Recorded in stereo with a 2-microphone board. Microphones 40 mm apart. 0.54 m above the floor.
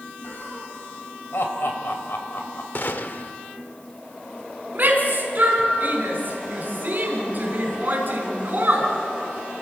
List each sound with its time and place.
0.2 s laughter: 65° left (ahead or behind), 3.5 m
2.8 s a gunshot: 55° left (ahead or behind), 0.9 m
4.8 s a shout: 45° right (ahead or behind), 5 m